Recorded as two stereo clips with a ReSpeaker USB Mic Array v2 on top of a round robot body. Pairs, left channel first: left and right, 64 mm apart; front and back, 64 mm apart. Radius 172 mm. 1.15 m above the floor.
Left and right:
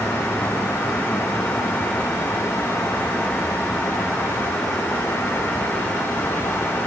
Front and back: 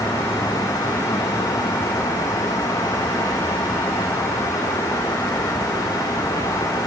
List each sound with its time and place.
Only background noise.